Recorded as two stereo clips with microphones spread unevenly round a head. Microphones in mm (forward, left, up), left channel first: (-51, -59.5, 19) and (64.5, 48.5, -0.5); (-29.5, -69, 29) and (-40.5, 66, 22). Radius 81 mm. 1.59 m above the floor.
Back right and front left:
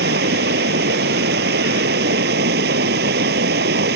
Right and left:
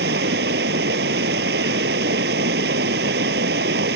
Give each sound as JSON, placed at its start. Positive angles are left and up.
{"t": 0.0, "sound": "running water", "azimuth_deg": 75}